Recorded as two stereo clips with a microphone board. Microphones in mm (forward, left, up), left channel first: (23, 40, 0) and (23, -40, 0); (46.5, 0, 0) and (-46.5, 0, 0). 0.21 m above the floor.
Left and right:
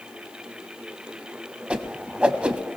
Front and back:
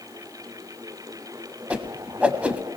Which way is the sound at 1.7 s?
135° right.